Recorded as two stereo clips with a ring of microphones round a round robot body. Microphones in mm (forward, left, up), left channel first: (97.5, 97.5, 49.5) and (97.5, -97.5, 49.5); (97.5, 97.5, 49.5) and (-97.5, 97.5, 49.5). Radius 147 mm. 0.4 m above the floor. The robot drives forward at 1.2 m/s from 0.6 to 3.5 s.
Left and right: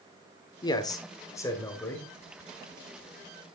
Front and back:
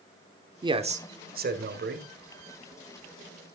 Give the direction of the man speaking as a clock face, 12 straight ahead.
7 o'clock.